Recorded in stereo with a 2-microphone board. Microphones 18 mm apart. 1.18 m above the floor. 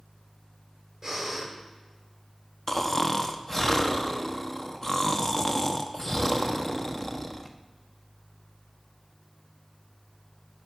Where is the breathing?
25° right (ahead or behind), 4 m.